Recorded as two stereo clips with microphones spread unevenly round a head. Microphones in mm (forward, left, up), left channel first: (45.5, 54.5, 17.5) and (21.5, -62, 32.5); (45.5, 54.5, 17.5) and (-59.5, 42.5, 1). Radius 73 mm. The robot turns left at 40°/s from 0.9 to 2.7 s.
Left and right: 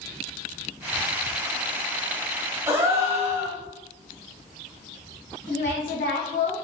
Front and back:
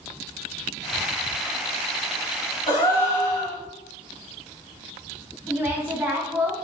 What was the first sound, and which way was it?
A gasp, 40° right.